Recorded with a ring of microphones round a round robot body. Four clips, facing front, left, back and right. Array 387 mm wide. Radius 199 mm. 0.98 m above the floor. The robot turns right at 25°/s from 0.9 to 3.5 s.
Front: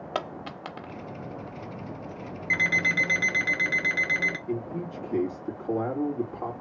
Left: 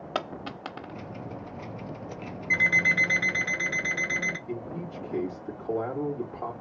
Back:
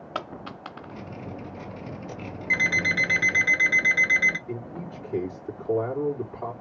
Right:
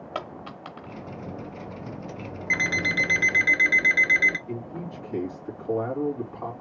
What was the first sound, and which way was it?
A dropped coin, 45° left.